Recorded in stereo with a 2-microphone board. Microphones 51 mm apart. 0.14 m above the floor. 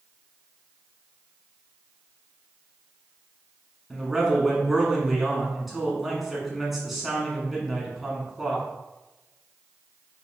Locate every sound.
3.9 s a man speaking: 5° right (ahead or behind), 1.1 m